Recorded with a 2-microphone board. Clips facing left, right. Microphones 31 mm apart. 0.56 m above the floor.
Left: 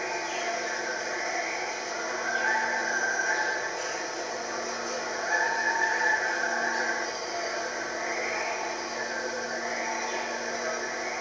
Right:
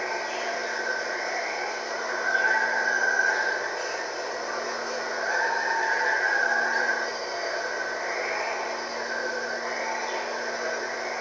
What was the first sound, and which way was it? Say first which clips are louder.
Running water: right 2 dB; 30° right (ahead or behind).